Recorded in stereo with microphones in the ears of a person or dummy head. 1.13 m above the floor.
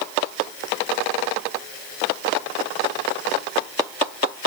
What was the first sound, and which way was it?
Only background noise.